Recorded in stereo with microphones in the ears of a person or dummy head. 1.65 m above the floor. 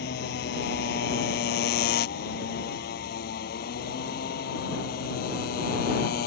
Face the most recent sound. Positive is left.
turn(degrees=55)  # may be behind; listen again after turning